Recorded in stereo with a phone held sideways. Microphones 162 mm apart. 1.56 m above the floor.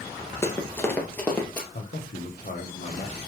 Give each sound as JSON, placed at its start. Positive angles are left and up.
{"t": 0.4, "sound": "running footsteps", "side_deg": 15, "distance_m": 1.8}
{"t": 1.7, "sound": "a man speaking", "side_deg": 70, "distance_m": 1.6}